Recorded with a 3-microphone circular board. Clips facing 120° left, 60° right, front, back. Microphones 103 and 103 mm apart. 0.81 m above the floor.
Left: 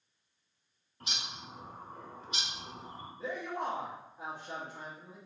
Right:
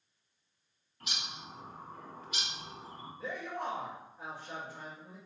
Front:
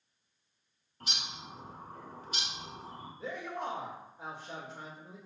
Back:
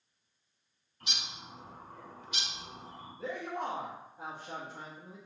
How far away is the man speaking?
About 1.0 m.